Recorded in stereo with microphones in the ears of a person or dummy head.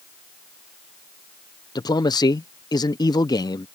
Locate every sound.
1.8 s a man speaking: 25° left (ahead or behind)